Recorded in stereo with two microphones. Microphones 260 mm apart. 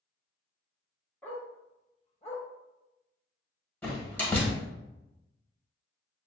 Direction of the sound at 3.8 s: 5° left (ahead or behind).